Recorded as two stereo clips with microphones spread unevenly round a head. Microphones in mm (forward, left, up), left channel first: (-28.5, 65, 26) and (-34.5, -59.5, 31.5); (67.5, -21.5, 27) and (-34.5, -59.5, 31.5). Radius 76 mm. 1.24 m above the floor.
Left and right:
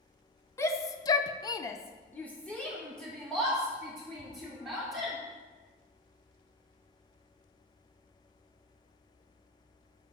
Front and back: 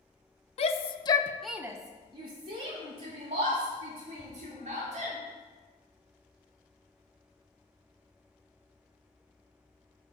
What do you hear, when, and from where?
0.6 s a shout: 20° left, 1.0 m; by 5.2 s 175° left, 4 m